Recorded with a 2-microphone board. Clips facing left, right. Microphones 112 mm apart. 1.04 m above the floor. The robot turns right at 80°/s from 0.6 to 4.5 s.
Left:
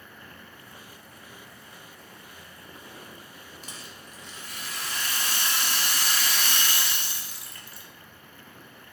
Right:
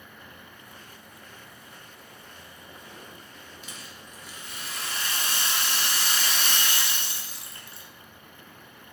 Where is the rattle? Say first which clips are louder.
Even; 135° left, 0.6 m; by 7.9 s 155° right, 0.6 m.